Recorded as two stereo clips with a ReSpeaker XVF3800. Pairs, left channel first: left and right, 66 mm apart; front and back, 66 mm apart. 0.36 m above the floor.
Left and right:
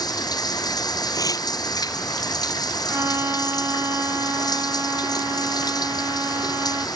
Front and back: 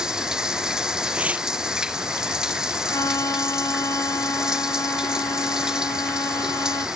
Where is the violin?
40° right.